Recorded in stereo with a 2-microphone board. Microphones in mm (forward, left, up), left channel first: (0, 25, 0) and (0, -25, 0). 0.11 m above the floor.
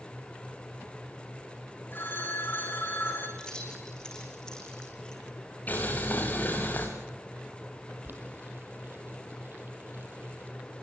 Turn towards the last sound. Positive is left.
turn(degrees=-45)  # may be behind; listen again after turning